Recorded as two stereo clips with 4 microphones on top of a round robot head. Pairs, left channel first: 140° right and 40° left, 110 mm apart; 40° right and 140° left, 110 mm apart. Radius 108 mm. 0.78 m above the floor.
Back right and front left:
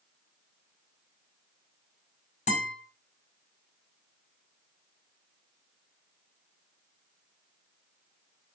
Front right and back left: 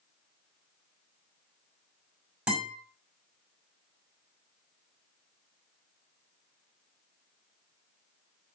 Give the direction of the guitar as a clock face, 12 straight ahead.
5 o'clock.